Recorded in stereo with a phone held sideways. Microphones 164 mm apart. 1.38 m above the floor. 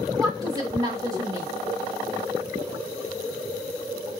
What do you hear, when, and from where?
0.2 s a woman speaking: 25° right (ahead or behind), 1.8 m